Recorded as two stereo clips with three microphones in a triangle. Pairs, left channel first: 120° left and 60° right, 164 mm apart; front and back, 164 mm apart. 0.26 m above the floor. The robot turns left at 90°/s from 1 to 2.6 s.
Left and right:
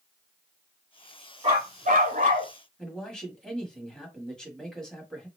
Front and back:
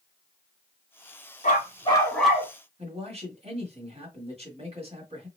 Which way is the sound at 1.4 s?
15° right.